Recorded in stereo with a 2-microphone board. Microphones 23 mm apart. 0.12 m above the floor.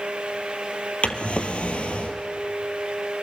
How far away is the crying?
I don't hear crying.